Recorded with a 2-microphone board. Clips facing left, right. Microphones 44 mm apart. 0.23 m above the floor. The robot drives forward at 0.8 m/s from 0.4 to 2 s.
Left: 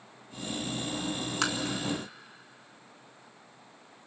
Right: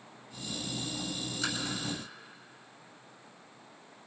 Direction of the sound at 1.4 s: 80° left.